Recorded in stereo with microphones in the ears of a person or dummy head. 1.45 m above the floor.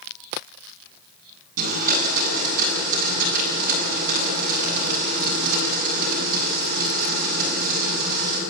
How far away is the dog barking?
I don't hear a dog barking.